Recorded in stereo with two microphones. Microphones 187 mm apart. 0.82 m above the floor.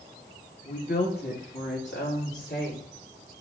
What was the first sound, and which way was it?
A woman speaking, 45° left (ahead or behind).